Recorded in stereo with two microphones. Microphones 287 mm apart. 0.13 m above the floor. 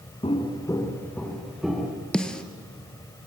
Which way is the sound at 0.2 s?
20° left (ahead or behind).